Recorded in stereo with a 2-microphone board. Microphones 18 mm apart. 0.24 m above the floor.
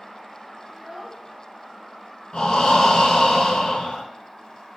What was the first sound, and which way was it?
A child speaking, 10° right (ahead or behind).